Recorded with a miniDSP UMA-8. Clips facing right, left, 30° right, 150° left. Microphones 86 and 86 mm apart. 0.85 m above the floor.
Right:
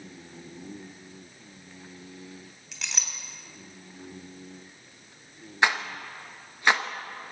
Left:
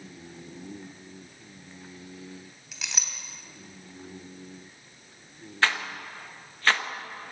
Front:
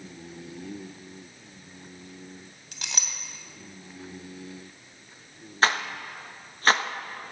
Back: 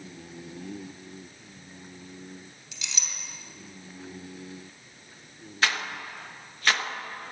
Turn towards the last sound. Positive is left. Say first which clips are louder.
# right 2 dB, front 4 dB
turn(degrees=-30)